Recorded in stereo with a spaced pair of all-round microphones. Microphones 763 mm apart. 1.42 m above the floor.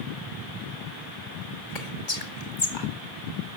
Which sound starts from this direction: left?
Whispering, at 1.8 s.